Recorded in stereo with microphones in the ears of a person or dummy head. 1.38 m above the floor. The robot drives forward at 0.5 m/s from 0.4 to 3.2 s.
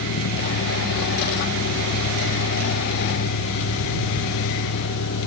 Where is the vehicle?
75° left (ahead or behind); by 5.3 s 80° left.